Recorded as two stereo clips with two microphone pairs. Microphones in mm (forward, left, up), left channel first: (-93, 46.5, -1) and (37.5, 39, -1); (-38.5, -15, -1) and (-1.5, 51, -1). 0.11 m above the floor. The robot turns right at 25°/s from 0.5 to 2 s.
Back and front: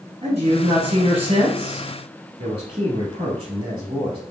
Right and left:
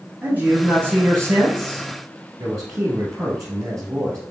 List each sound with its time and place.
0.2 s a man speaking: 5° left, 2.0 m; by 4.2 s 40° left, 2.0 m